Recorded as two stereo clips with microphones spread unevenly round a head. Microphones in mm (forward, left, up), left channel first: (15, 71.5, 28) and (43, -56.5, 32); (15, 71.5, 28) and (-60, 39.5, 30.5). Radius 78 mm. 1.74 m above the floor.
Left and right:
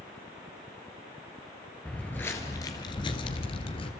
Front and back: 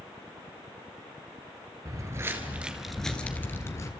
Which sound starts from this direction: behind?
Footsteps, at 1.9 s.